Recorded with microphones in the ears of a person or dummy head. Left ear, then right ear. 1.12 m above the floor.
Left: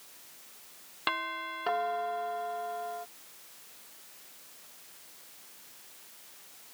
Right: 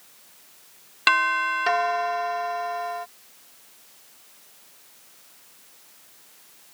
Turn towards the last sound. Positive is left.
turn(degrees=-70)  # may be behind; listen again after turning